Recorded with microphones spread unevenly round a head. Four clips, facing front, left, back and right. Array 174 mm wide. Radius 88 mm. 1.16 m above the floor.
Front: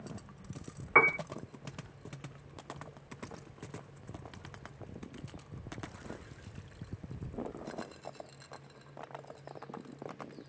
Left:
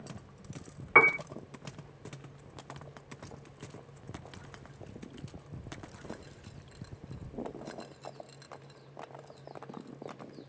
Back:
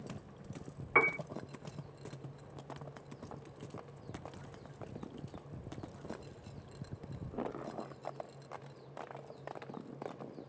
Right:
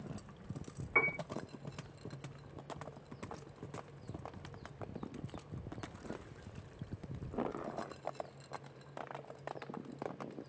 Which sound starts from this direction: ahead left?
A piano, at 0.9 s.